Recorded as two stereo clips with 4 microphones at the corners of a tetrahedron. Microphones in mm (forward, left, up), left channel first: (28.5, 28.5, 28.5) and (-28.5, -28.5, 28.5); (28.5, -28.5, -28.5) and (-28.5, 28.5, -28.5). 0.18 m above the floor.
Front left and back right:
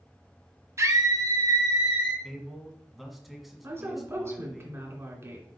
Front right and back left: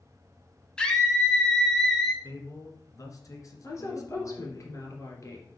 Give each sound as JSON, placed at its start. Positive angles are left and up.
{"t": 0.8, "sound": "a scream", "azimuth_deg": -120, "distance_m": 1.7}
{"t": 2.2, "sound": "a man speaking", "azimuth_deg": -45, "distance_m": 1.6}
{"t": 3.6, "sound": "a woman speaking", "azimuth_deg": -85, "distance_m": 2.5}